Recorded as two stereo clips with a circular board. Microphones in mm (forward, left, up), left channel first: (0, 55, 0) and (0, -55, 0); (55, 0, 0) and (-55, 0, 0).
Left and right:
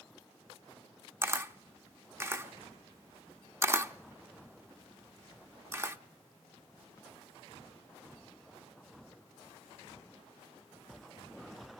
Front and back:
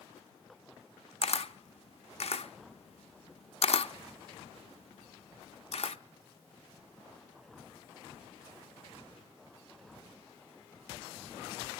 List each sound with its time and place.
1.2 s a camera shutter: 25° right, 0.6 m